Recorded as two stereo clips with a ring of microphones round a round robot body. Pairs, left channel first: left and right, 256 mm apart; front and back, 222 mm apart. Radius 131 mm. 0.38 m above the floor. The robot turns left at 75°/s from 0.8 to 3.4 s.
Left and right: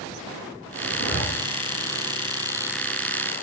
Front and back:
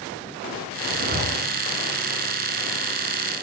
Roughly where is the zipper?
Behind left.